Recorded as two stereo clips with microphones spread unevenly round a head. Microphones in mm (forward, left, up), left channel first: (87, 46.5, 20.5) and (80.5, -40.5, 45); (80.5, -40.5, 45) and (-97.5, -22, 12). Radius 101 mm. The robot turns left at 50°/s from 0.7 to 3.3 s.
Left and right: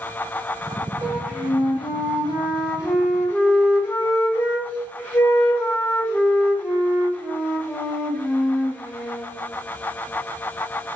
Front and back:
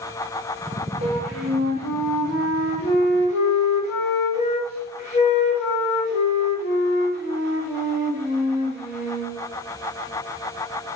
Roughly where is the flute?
Behind left.